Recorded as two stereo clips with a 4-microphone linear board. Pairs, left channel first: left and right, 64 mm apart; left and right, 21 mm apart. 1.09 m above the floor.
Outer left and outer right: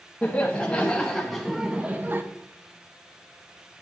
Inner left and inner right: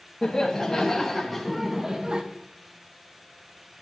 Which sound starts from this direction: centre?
Laughter, at 0.2 s.